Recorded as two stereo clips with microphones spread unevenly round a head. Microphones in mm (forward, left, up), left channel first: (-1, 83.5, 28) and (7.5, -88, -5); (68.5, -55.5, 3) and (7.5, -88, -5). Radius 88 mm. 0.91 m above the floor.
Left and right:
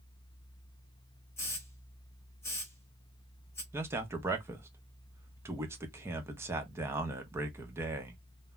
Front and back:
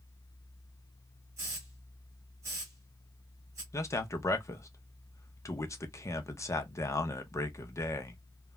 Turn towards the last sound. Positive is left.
turn(degrees=-20)